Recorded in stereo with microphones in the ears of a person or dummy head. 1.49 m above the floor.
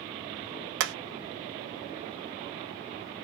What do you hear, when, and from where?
0.8 s hammering: 70° right (ahead or behind), 0.7 m